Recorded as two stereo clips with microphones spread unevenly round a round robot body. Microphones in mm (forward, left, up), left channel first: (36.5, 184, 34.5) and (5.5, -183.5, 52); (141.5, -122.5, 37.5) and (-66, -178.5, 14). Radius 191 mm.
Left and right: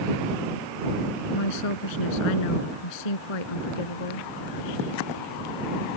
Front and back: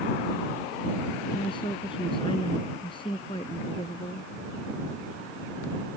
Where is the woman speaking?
90° left.